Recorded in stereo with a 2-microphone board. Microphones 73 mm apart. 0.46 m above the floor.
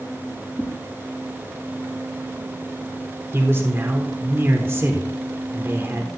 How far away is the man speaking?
About 1.2 m.